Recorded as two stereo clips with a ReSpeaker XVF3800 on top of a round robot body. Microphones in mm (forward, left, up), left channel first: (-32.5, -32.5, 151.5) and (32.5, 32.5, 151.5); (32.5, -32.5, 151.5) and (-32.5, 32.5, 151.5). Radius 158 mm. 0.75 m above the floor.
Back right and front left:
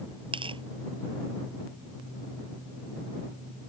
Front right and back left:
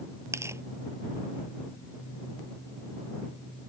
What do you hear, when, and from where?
0.3 s tearing paper: 75° left